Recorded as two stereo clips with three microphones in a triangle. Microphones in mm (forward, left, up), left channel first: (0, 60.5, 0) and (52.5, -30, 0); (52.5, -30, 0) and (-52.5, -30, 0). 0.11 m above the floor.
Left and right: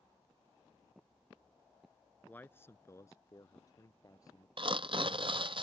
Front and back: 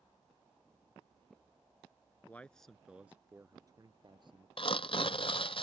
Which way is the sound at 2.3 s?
60° left.